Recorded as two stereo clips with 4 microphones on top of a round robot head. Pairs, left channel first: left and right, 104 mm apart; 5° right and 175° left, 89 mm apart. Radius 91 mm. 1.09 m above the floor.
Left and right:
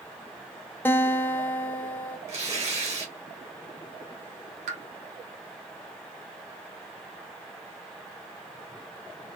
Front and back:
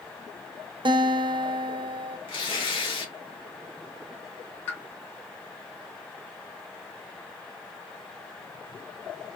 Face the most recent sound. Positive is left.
turn(degrees=-80)